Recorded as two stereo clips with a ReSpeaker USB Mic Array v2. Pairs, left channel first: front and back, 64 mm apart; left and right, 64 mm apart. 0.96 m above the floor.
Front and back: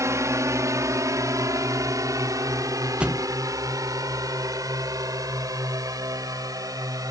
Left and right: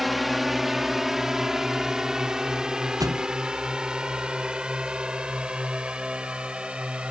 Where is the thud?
105° right.